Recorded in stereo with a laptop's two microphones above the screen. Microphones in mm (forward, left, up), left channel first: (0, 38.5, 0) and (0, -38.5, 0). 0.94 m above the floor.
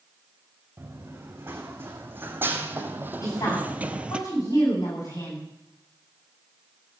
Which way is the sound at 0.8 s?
25° right (ahead or behind).